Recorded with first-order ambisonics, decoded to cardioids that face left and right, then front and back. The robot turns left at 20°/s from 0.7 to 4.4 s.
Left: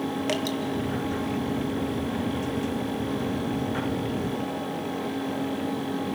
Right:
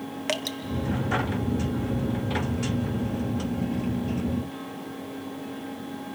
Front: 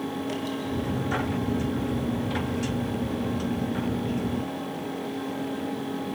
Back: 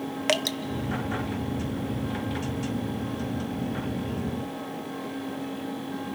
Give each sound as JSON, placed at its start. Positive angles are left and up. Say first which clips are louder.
{"t": 0.3, "sound": "dripping", "louder": "right 1 dB, back 7 dB", "azimuth_deg": -170, "distance_m": 0.7}